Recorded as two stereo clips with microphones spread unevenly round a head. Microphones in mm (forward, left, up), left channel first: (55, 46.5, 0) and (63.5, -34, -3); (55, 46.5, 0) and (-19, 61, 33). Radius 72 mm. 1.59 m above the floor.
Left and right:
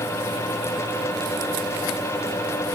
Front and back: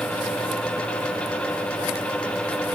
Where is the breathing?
I don't hear breathing.